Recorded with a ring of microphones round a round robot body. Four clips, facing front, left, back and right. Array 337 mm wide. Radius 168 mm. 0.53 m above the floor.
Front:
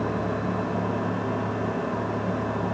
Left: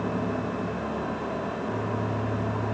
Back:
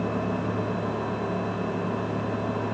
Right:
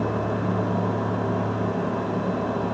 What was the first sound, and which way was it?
Only background noise.